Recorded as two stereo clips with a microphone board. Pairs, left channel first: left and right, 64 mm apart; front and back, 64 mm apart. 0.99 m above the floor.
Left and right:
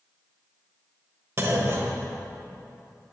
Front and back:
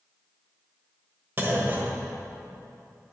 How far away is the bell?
I don't hear a bell.